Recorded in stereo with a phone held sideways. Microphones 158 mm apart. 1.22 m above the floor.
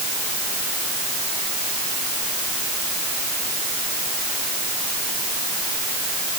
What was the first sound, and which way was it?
Only background noise.